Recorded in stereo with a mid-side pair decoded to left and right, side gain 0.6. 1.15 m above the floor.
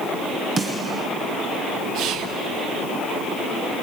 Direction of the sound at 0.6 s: 30° right.